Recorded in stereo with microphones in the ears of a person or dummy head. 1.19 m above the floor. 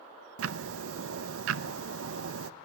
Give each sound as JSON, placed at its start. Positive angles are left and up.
{"t": 0.4, "sound": "ticking", "side_deg": -90, "distance_m": 0.8}